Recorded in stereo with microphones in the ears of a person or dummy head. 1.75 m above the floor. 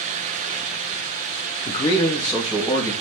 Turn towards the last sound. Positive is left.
turn(degrees=-10)  # may be behind; listen again after turning